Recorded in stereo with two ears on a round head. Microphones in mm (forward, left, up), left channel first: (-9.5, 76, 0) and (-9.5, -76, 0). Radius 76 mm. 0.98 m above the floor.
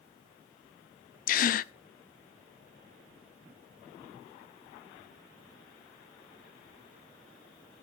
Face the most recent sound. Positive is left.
turn(degrees=50)  # may be behind; listen again after turning